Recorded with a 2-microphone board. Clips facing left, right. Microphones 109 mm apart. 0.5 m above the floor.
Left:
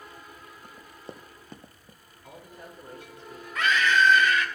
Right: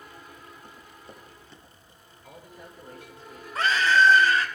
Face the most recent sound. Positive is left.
turn(degrees=-35)  # may be behind; listen again after turning